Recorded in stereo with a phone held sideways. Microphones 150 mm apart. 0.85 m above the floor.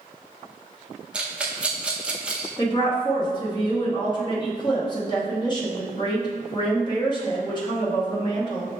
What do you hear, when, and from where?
1.1 s a rattle: 5° right (ahead or behind), 0.5 m
2.6 s a woman speaking: 30° left (ahead or behind), 1.1 m